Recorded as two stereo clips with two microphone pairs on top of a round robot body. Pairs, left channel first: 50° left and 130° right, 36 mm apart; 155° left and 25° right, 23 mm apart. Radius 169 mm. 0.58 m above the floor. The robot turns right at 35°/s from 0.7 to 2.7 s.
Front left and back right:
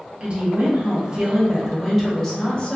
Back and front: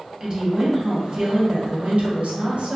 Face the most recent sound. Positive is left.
turn(degrees=-15)